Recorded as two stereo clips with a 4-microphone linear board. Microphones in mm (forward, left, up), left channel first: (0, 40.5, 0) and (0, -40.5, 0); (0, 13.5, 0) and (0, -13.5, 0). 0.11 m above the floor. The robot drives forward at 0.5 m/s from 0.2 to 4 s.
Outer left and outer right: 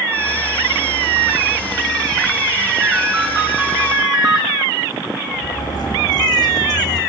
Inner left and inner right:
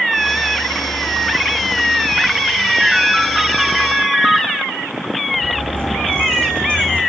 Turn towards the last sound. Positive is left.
turn(degrees=50)  # may be behind; listen again after turning